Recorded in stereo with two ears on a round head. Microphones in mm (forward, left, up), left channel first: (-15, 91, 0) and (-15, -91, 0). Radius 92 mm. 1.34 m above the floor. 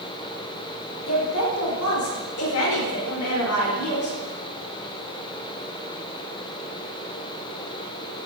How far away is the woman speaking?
About 4 m.